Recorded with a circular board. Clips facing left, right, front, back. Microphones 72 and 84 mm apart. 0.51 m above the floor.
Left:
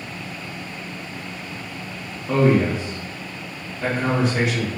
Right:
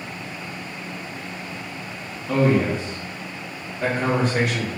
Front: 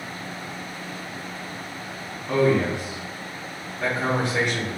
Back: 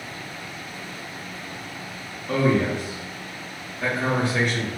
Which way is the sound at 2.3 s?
75° left.